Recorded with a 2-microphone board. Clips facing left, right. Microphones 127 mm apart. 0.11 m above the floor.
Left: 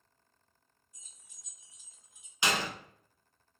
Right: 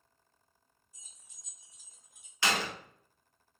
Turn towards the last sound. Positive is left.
turn(degrees=20)  # may be behind; listen again after turning